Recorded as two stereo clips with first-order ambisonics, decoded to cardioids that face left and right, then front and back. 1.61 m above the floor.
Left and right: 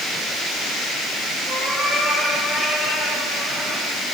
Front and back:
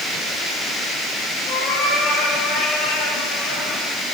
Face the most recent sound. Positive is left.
turn(degrees=-10)